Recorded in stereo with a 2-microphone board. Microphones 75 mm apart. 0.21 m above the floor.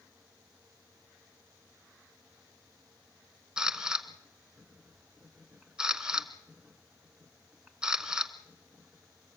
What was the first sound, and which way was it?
A camera shutter, 10° right (ahead or behind).